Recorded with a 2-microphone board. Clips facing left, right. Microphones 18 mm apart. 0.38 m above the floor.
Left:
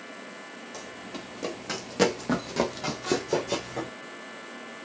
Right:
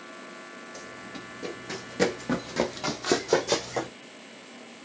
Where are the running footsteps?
45° left (ahead or behind), 1.7 m; by 3.9 s 50° right (ahead or behind), 1.1 m.